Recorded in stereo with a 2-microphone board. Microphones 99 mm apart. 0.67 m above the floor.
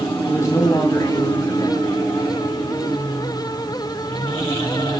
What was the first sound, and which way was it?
A man speaking, 35° left (ahead or behind).